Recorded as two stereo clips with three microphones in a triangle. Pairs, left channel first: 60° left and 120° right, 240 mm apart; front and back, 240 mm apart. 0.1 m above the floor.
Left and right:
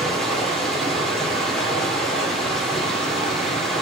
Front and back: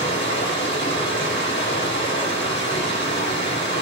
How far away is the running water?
About 1.9 m.